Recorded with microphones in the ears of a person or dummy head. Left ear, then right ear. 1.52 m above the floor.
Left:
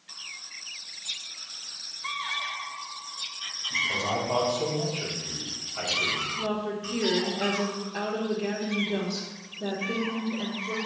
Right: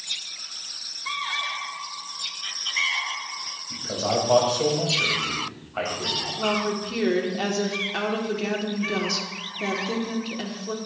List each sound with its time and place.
3.7 s a man speaking: 50° right (ahead or behind), 2.5 m
6.4 s a woman speaking: 70° right (ahead or behind), 1.6 m